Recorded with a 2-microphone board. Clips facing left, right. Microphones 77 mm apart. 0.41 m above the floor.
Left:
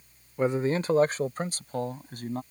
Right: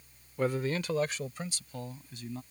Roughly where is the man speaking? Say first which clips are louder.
Left 5 dB; centre.